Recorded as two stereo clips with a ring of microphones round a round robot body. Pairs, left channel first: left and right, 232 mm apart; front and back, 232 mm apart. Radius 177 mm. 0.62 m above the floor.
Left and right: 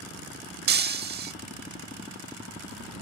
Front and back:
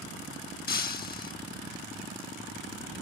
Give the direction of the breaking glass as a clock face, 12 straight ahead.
2 o'clock.